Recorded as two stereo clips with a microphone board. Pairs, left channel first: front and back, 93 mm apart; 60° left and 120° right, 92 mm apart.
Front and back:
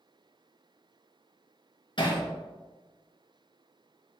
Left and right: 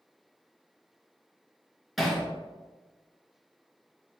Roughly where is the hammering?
Ahead right.